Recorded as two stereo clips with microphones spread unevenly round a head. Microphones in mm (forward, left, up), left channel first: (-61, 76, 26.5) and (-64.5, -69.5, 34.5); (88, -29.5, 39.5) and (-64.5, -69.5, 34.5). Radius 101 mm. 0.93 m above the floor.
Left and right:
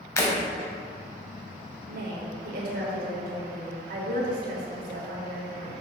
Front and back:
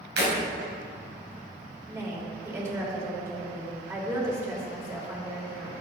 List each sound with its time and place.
0.2 s breaking glass: 155° left, 3 m
1.9 s a woman speaking: 95° right, 3 m